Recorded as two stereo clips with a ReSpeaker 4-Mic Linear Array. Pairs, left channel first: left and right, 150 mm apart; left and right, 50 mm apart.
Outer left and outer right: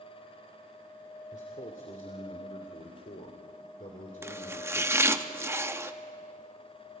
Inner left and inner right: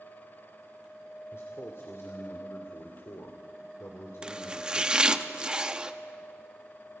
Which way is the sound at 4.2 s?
20° right (ahead or behind).